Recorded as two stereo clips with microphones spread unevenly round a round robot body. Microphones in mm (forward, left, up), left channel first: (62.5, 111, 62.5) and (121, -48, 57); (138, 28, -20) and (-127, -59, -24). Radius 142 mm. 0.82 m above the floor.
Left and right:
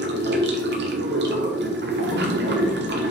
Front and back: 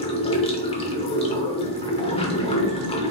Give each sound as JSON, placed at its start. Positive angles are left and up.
{"t": 0.0, "sound": "running water", "azimuth_deg": -55, "distance_m": 1.2}